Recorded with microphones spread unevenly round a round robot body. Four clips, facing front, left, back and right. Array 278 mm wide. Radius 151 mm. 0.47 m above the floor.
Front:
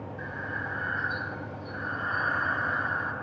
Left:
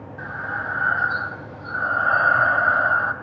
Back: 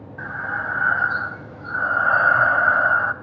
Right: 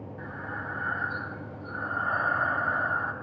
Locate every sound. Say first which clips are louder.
0.2 s breathing: left 9 dB, back 10 dB; 150° left, 1.6 m